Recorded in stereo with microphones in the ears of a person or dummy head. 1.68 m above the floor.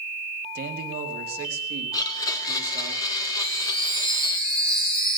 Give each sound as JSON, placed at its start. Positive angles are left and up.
{"t": 0.6, "sound": "a man speaking", "side_deg": -50, "distance_m": 1.8}
{"t": 1.9, "sound": "a blender", "side_deg": 20, "distance_m": 1.5}
{"t": 3.4, "sound": "a chime", "side_deg": 10, "distance_m": 7.5}